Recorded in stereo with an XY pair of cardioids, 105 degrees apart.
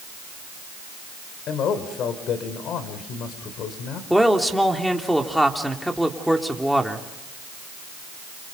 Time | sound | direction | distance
1.5 | a man speaking | 70° left | 4 m
4.1 | a man speaking | straight ahead | 3.5 m